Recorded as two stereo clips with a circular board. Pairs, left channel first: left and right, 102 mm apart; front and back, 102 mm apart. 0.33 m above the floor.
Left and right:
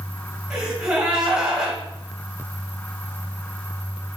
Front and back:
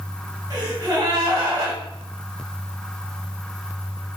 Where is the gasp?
170° right, 1.3 m.